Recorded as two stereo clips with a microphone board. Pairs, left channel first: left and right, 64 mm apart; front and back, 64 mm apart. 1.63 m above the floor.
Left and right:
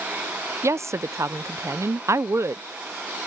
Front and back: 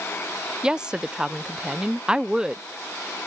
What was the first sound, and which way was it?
A woman speaking, 105° right.